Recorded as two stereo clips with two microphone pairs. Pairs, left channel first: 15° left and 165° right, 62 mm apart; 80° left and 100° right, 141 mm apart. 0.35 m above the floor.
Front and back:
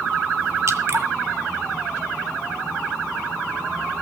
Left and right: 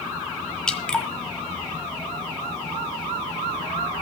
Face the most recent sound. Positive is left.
turn(degrees=165)